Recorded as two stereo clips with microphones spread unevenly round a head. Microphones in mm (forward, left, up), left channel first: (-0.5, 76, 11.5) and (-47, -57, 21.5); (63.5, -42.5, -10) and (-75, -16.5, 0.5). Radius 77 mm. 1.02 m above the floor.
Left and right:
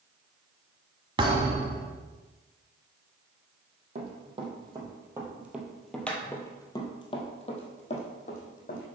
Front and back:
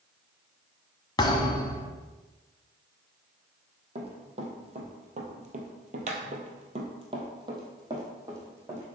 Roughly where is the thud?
Ahead right.